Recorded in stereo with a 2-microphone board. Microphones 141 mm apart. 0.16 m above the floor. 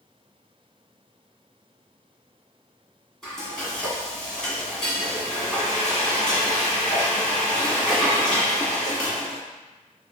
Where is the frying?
5° left (ahead or behind), 1.8 m.